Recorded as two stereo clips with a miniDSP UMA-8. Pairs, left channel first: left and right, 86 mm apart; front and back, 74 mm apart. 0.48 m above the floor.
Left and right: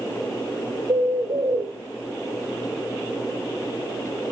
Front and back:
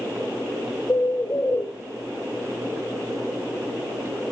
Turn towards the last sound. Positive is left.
turn(degrees=-50)